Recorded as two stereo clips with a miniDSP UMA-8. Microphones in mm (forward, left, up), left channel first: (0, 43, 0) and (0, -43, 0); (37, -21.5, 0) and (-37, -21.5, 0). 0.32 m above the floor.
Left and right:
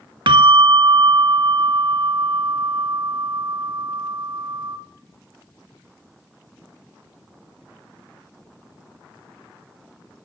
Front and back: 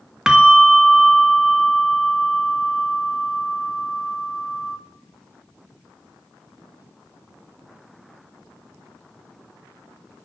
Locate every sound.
0.3 s a bell: 100° right, 0.6 m